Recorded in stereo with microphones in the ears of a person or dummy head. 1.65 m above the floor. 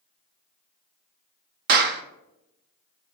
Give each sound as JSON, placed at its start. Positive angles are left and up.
{"t": 1.7, "sound": "a clap", "side_deg": -50, "distance_m": 0.8}